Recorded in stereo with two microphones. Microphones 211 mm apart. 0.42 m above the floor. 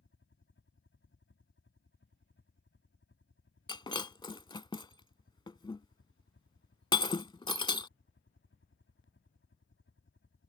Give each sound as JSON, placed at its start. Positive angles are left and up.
{"t": 0.0, "sound": "a helicopter", "side_deg": 65}
{"t": 3.7, "sound": "breaking glass", "side_deg": 20}